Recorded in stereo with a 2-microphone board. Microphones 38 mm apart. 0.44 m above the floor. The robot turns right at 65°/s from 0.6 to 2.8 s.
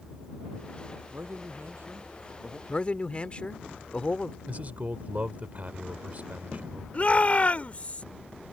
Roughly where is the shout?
Left.